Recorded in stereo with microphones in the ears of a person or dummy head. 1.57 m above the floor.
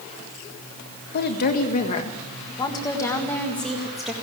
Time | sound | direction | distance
1.1 | a woman speaking | 50° left (ahead or behind) | 1.8 m